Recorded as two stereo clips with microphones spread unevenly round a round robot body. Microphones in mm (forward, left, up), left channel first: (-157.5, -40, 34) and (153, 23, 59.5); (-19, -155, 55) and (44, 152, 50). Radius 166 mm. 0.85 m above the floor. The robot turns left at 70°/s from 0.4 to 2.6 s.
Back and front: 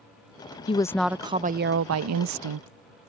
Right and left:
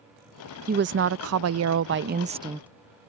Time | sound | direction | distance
0.7 | a woman speaking | 130° left | ?